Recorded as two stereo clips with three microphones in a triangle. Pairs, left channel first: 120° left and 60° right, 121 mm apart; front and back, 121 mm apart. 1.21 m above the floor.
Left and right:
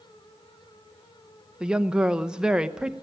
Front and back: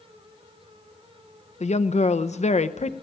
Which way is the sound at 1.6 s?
25° left.